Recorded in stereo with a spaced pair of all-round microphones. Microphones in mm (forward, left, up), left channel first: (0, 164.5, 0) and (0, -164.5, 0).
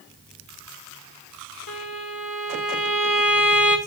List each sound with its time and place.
1.7 s a violin: 70° left (ahead or behind), 2 m